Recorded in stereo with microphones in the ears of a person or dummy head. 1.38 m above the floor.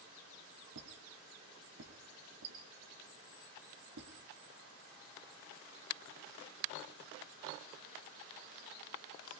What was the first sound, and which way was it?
A squeak, 60° right (ahead or behind).